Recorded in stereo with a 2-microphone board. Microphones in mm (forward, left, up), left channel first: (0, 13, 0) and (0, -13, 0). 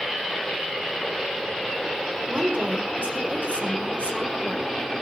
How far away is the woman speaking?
About 4 m.